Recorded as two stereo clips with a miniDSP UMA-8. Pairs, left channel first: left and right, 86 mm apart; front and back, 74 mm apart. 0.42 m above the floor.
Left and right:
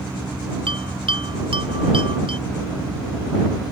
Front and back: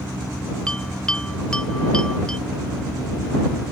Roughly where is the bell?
Right.